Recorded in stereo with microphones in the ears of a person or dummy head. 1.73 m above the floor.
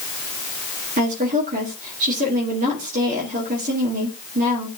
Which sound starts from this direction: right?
A woman speaking, at 1.0 s.